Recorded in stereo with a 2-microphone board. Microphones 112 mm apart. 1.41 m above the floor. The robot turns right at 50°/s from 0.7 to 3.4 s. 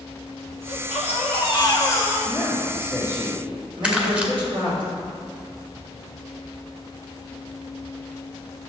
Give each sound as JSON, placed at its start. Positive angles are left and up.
{"t": 0.7, "sound": "a baby crying", "azimuth_deg": 90, "distance_m": 1.1}
{"t": 2.2, "sound": "a man speaking", "azimuth_deg": 175, "distance_m": 3.5}
{"t": 3.8, "sound": "crumpling", "side_deg": -10, "distance_m": 1.3}